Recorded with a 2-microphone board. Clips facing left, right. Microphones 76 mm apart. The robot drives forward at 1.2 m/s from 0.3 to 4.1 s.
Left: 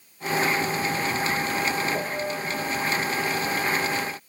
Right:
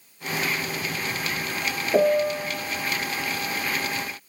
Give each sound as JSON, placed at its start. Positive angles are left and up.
{"t": 1.9, "sound": "a piano", "side_deg": -70, "distance_m": 0.6}